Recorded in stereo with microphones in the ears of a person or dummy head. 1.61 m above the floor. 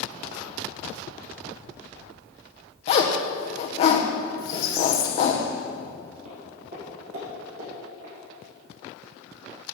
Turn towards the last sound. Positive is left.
turn(degrees=-65)  # may be behind; listen again after turning